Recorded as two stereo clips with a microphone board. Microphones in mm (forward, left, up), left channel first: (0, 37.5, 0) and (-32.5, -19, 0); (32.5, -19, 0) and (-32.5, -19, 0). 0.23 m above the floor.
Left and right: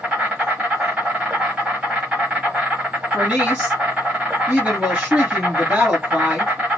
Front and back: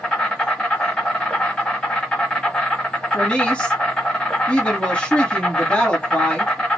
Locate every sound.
0.0 s an insect: 65° right, 1.3 m
3.1 s a woman speaking: 65° right, 1.9 m